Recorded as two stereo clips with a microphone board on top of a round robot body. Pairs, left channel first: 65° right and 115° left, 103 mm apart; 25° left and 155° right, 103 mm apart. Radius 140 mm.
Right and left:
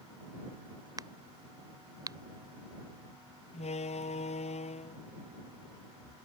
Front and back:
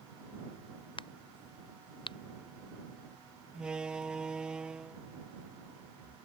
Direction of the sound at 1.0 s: 60° left.